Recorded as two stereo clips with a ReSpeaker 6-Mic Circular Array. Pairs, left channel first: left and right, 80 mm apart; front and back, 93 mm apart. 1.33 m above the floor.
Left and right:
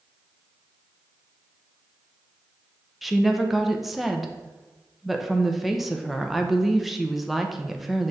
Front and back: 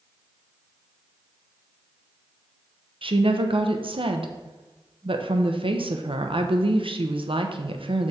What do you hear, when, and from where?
3.0 s a woman speaking: straight behind, 0.7 m